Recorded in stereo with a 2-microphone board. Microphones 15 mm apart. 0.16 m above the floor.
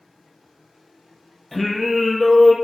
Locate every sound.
1.5 s singing: 5° right (ahead or behind), 1.5 m